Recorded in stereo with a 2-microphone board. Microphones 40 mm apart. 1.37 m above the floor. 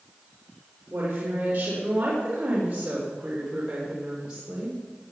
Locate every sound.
0.9 s a woman speaking: 45° right (ahead or behind), 4 m; by 4.8 s 10° right (ahead or behind), 4 m